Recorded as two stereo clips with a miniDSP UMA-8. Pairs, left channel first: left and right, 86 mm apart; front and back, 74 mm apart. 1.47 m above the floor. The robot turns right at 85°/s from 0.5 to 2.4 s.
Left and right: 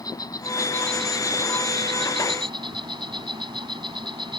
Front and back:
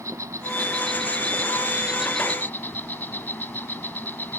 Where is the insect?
135° left; by 4.4 s 65° right.